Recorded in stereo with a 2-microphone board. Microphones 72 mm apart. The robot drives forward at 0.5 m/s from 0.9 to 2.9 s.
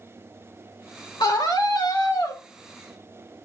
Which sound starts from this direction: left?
A scream, at 1.2 s.